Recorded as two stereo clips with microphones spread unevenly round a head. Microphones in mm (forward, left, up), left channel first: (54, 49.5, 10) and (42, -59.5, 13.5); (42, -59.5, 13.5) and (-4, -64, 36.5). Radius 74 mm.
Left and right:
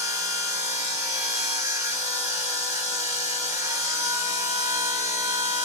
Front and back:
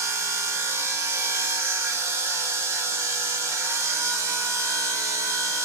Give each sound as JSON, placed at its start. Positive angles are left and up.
{"t": 0.0, "sound": "a machine running", "azimuth_deg": -170, "distance_m": 3.0}